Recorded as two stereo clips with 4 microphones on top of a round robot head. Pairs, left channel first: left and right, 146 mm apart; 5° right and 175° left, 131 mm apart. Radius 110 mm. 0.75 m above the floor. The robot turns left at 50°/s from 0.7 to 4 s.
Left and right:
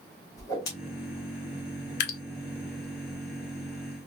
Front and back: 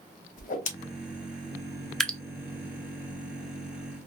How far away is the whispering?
I don't hear whispering.